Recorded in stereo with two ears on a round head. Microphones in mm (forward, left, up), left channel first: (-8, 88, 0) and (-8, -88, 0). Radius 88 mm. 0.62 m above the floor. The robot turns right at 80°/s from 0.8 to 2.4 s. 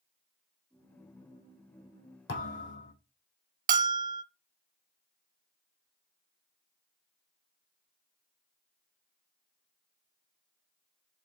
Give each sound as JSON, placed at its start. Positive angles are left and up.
{"t": 2.3, "sound": "a thud", "side_deg": 55, "distance_m": 3.5}
{"t": 3.7, "sound": "a bell", "side_deg": -40, "distance_m": 0.5}